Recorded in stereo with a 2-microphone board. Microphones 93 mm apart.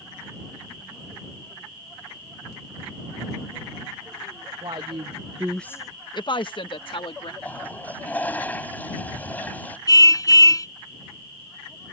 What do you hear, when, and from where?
4.6 s a woman speaking: 55° right (ahead or behind); by 7.3 s 65° left (ahead or behind)
7.4 s a toilet flushing: 15° left (ahead or behind)
9.9 s a car horn: 35° left (ahead or behind)